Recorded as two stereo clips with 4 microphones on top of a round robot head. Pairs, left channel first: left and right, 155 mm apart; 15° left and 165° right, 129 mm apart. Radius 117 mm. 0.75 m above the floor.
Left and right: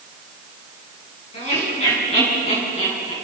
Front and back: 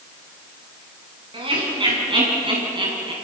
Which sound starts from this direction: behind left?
Laughter, at 1.3 s.